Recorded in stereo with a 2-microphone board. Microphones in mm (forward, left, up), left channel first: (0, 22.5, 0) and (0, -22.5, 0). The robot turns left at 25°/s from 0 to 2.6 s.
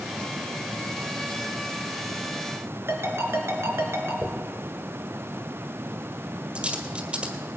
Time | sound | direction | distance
2.9 | a ringtone | 65° right (ahead or behind) | 3 m
4.2 | a dropped coin | 25° right (ahead or behind) | 1.7 m